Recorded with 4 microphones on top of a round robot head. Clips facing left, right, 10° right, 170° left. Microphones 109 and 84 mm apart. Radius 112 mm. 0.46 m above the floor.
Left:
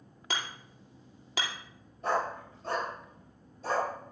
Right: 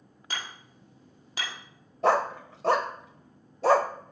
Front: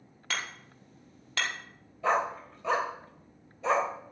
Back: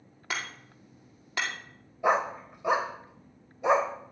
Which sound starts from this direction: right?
A dog barking, at 2.0 s.